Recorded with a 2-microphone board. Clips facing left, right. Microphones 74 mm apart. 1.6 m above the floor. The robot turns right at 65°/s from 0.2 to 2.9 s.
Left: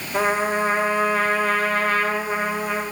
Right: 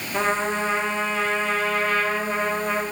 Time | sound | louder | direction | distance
0.1 | a trumpet | left 3 dB | 15° left | 0.9 m